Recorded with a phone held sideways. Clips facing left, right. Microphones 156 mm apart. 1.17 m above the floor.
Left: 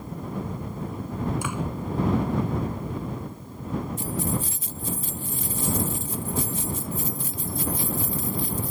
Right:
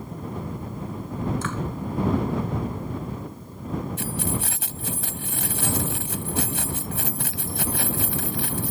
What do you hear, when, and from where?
1.4 s a door slam: 10° left (ahead or behind)
4.0 s keys jangling: 80° right